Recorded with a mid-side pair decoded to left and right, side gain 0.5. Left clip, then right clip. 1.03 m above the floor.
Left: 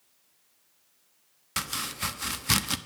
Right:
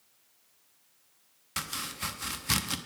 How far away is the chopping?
About 0.8 m.